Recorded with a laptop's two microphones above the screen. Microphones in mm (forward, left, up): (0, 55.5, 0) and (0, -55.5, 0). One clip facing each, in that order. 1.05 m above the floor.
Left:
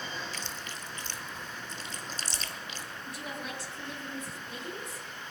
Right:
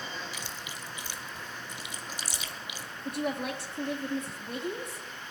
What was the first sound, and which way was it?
Chewing, 10° right (ahead or behind).